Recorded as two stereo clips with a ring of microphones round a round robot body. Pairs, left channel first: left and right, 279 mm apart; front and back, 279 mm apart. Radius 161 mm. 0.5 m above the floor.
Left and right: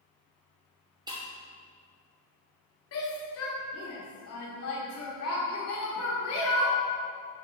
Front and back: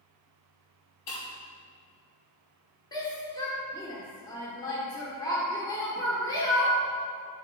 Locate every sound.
1.1 s breaking glass: 15° right, 2.5 m
2.9 s a shout: 75° left, 1.4 m